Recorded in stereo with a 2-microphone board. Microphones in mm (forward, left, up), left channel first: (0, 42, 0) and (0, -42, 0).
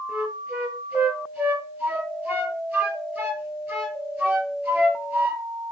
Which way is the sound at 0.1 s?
20° right (ahead or behind).